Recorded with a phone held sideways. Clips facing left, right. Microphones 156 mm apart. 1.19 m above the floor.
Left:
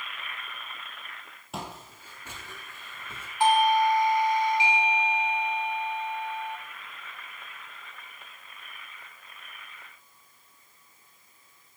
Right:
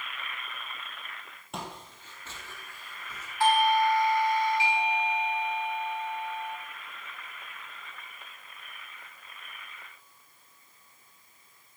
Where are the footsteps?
Centre (ahead or behind), 2.5 m; by 3.3 s 30° left (ahead or behind), 2.5 m.